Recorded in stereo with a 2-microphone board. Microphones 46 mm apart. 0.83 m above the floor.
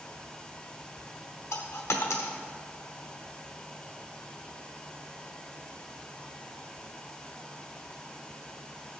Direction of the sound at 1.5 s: 70° left (ahead or behind).